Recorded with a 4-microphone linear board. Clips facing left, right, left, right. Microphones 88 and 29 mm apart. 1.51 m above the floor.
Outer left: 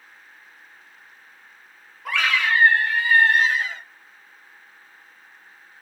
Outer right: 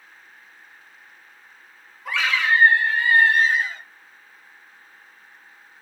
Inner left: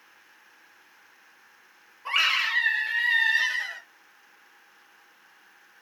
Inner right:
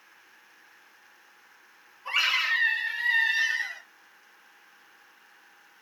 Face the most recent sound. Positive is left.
turn(degrees=85)